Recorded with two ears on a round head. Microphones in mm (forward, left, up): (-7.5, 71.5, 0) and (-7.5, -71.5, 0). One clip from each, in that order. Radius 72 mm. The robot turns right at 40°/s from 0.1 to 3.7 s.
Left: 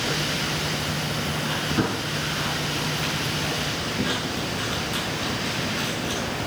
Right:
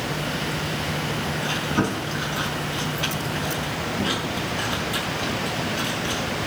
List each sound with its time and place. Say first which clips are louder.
1.4 s chewing: right 2 dB; 80° right, 5 m; by 6.2 s centre (ahead or behind), 5 m